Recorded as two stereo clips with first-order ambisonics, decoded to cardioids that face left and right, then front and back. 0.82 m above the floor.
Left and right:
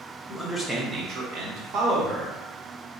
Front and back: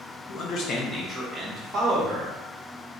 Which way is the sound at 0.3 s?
15° left.